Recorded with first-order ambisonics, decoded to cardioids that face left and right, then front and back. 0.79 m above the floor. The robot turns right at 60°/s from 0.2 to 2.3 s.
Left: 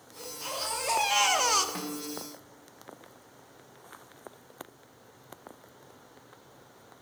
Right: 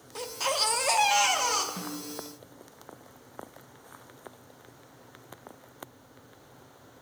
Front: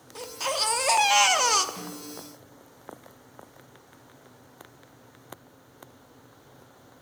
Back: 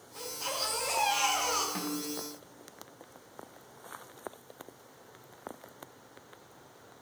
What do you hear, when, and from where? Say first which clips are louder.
0.1 s a baby crying: right 8 dB, front 7 dB; 60° right, 0.7 m; by 1.6 s 25° left, 0.7 m
1.8 s a snare drum: left 1 dB, back 3 dB; 130° left, 1.3 m; by 2.3 s 165° left, 1.3 m